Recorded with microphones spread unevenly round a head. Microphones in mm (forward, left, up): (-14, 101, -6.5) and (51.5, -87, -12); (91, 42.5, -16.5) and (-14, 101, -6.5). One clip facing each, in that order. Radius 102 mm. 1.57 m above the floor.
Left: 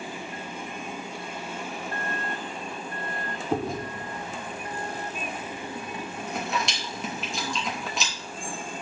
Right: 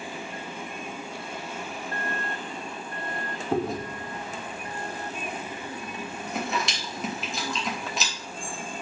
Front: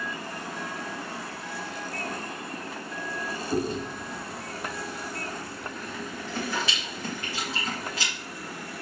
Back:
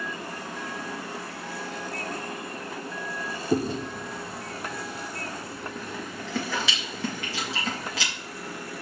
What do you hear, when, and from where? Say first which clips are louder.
3.5 s chewing: right 1 dB, back 3 dB; 160° right, 0.7 m